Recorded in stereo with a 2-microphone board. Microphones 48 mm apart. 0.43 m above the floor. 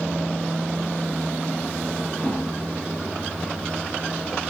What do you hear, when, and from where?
2.2 s a whoosh: 35° left (ahead or behind), 3 m